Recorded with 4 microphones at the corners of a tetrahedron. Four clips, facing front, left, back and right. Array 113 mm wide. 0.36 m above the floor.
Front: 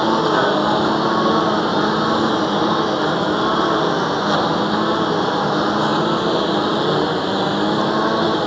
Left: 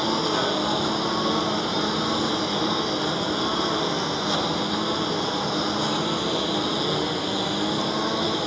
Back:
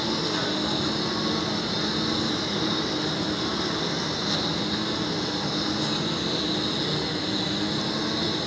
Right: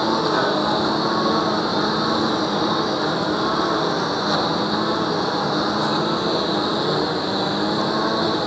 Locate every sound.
0.0 s a lawn mower: 15° right